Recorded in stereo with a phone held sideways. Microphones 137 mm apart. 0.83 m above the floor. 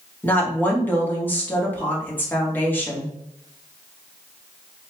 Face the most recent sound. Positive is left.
turn(degrees=15)  # may be behind; listen again after turning